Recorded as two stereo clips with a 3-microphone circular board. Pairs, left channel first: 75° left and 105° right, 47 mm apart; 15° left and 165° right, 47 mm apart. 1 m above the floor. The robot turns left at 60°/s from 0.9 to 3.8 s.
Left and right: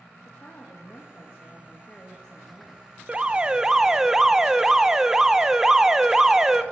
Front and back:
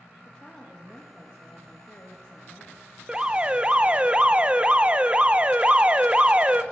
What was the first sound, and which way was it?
A woman speaking, 90° left.